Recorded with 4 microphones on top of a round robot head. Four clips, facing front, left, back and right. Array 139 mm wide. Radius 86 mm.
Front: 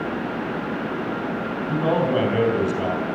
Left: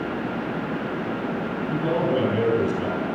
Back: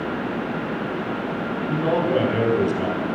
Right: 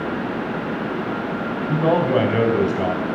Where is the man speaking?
80° right, 3 m.